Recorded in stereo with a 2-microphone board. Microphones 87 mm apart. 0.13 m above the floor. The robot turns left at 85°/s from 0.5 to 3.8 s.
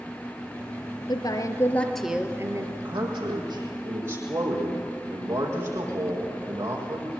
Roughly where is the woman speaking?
Left.